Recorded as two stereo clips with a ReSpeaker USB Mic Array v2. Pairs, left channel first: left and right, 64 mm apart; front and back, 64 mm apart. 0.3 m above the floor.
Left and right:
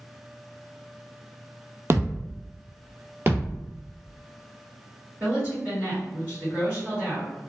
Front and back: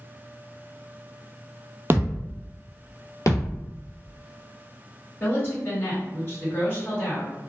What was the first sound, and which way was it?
A thud, 130° right.